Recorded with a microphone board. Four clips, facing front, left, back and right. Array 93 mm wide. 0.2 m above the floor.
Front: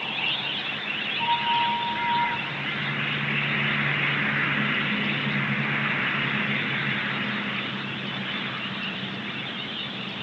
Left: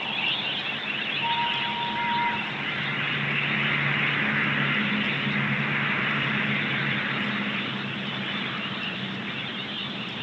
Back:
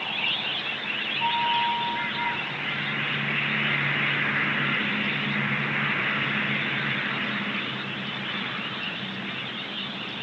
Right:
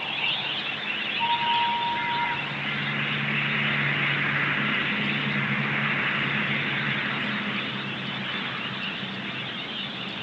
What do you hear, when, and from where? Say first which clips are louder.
1.2 s a flute: right 4 dB, front 1 dB; 55° right, 3 m